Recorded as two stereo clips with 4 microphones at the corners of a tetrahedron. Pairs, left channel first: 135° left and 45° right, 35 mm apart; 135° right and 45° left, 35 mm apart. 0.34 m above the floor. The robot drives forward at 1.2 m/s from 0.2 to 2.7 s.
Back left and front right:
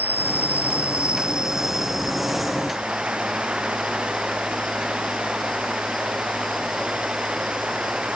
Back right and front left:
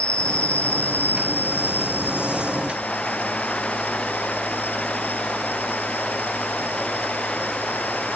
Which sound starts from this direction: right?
An insect, at 0.0 s.